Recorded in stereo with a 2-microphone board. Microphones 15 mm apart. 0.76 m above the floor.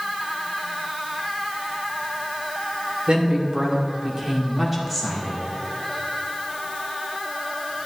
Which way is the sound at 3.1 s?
60° right (ahead or behind).